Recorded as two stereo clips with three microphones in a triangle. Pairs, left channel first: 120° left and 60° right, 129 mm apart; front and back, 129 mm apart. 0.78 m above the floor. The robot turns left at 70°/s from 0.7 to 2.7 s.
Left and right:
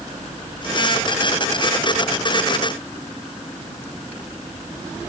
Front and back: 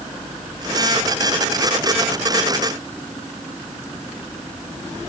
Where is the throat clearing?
I don't hear throat clearing.